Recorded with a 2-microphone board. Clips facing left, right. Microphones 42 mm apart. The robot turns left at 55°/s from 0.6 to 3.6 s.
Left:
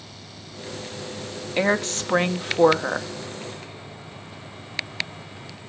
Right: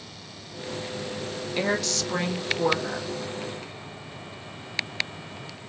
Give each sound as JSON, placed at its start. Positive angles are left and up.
{"t": 1.6, "sound": "a woman speaking", "azimuth_deg": 150, "distance_m": 1.1}